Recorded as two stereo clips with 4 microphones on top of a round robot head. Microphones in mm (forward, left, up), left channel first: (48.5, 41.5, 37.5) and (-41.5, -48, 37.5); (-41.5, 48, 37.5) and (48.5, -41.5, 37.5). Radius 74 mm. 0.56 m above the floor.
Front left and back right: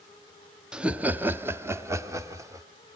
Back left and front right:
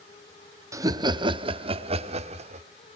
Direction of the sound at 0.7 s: 60° right.